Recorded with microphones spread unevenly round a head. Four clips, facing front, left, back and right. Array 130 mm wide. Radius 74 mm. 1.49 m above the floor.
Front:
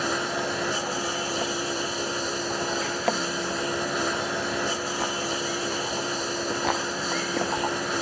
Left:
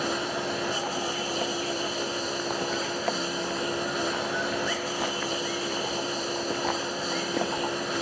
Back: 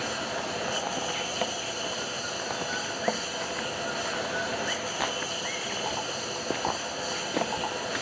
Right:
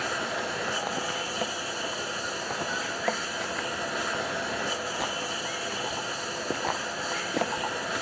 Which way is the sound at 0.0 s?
40° left.